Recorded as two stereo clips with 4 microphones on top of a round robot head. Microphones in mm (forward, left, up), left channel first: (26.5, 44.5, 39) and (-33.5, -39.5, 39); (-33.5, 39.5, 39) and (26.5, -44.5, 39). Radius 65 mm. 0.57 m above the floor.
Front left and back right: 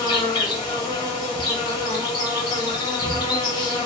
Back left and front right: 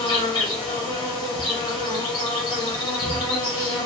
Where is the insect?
95° left, 1.1 m.